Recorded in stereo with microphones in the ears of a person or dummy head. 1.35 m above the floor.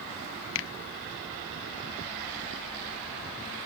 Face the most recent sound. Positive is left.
turn(degrees=70)  # may be behind; listen again after turning